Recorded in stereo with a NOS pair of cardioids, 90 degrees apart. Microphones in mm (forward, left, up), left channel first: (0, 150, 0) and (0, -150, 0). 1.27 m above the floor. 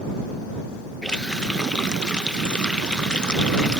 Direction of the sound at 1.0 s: 5° left.